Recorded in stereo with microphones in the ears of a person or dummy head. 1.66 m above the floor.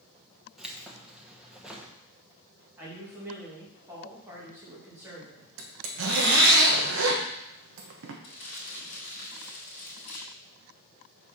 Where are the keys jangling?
5° right (ahead or behind), 1.1 m.